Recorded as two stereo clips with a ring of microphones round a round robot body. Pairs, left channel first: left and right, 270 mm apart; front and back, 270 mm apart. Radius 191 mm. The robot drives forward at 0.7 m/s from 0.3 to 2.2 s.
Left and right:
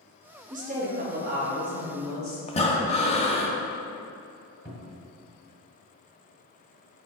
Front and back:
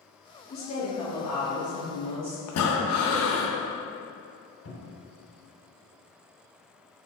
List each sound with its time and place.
0.5 s a woman speaking: 35° right, 0.9 m; by 2.4 s 150° right, 1.0 m
2.5 s breathing: 20° left, 0.6 m
4.7 s a cupboard door: 40° left, 1.2 m